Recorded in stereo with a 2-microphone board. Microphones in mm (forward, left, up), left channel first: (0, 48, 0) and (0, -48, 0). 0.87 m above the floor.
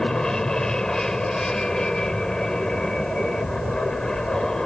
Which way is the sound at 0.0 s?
5° left (ahead or behind).